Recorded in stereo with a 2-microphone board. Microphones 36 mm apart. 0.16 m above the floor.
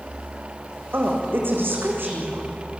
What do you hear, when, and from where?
0.9 s a woman speaking: 75° right (ahead or behind), 7.5 m